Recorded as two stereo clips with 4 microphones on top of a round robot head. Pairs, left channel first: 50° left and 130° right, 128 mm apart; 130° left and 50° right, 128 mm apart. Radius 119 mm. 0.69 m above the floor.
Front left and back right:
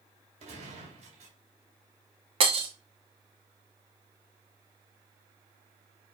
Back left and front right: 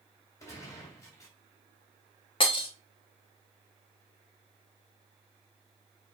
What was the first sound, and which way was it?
A gunshot, 165° right.